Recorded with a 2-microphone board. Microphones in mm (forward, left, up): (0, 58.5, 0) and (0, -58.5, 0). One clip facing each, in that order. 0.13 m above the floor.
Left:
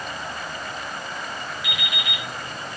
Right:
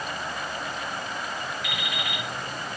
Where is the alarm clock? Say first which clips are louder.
Even; 45° right (ahead or behind), 2.5 m.